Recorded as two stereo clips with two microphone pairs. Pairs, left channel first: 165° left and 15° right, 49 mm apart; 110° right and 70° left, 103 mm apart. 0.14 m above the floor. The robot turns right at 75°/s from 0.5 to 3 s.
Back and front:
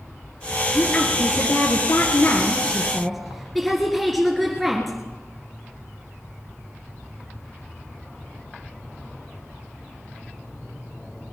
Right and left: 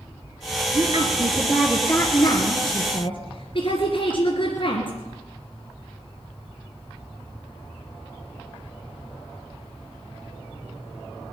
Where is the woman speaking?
90° left, 2 m; by 5.0 s 100° right, 2 m.